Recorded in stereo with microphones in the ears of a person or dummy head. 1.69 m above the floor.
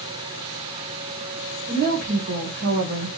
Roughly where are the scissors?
No scissors in this recording.